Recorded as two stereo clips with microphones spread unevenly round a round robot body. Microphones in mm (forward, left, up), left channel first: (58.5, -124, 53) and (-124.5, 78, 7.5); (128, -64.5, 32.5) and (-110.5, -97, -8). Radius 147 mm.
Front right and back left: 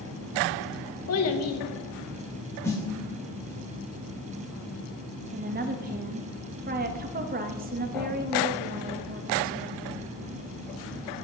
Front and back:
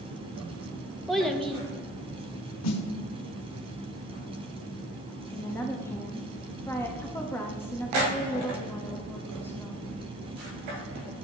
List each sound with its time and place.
1.1 s a child speaking: 85° right, 1.3 m
2.6 s a snare drum: 30° left, 0.9 m
5.3 s a woman speaking: 95° left, 0.8 m